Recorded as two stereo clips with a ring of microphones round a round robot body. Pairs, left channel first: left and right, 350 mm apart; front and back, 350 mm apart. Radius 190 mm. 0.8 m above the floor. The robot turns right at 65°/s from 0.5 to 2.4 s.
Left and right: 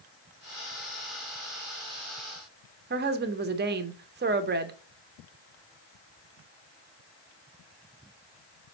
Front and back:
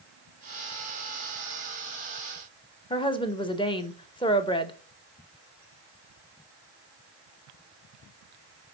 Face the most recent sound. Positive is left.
turn(degrees=-65)